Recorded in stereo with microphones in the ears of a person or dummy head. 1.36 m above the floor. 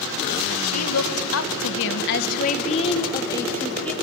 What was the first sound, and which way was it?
A woman speaking, 80° left.